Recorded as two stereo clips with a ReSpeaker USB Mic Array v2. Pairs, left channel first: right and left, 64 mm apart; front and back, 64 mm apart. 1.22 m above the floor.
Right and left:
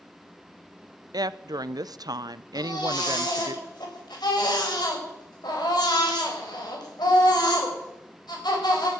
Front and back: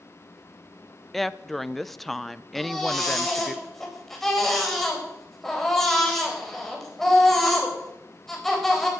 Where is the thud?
I don't hear a thud.